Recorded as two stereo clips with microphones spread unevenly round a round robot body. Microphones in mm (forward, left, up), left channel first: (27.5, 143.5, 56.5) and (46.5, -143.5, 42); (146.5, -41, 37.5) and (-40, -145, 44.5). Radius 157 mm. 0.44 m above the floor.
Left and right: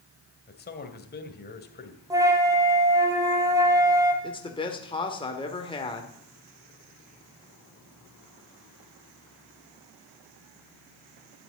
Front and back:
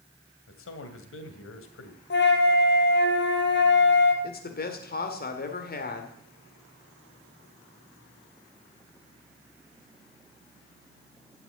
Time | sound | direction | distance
0.5 | a man speaking | 35° left | 2 m
2.1 | a flute | 5° right | 2.5 m
4.2 | a man speaking | 25° left | 2.0 m